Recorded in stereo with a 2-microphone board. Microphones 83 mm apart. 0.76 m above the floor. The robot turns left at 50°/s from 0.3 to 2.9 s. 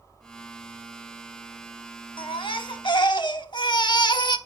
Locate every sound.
2.2 s a baby crying: 105° left, 0.8 m; by 4.4 s 65° left, 0.8 m